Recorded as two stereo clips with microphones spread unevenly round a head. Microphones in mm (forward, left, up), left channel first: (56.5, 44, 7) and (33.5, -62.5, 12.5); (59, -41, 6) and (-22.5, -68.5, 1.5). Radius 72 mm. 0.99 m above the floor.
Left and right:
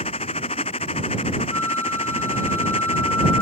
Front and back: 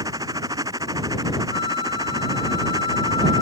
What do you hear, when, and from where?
0.0 s a machine running: 130° left
1.5 s a flute: 10° left